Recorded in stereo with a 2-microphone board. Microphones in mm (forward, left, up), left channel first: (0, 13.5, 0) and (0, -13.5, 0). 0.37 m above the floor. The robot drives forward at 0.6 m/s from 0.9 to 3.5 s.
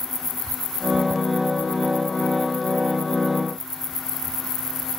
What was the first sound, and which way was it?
Only background noise.